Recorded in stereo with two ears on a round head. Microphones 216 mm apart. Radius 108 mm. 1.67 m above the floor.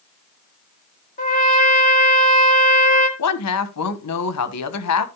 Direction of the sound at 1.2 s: 35° left (ahead or behind).